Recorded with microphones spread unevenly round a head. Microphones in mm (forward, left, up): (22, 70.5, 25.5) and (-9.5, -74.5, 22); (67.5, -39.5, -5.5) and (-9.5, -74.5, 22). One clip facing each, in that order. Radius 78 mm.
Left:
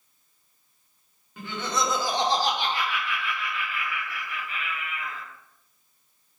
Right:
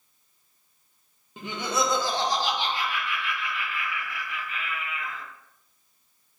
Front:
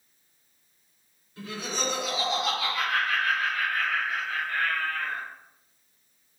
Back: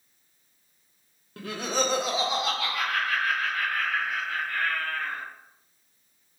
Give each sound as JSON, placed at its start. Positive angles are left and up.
{"t": 1.4, "sound": "laughter", "azimuth_deg": -170, "distance_m": 0.7}